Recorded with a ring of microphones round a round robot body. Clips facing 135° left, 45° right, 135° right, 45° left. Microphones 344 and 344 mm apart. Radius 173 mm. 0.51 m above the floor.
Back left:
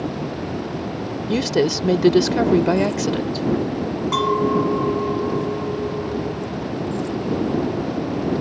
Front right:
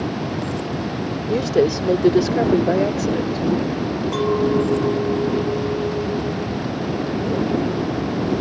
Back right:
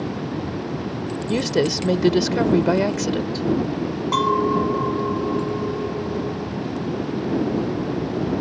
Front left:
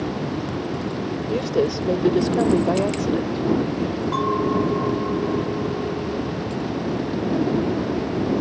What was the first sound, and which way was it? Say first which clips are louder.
A woman speaking: front right 2 dB, back right 1 dB; 165° right.